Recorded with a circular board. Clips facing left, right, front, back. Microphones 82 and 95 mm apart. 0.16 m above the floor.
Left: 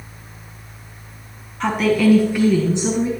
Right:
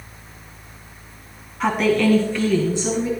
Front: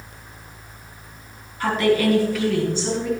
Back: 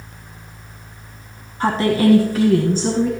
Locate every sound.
1.6 s a woman speaking: 170° right, 1.5 m; by 3.1 s 145° left, 2 m